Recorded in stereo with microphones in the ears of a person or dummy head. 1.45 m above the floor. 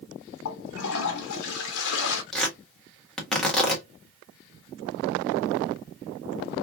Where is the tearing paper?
10° left (ahead or behind), 1.4 m.